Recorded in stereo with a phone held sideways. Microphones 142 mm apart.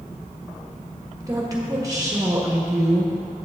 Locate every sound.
1.2 s a woman speaking: 25° right (ahead or behind), 1.5 m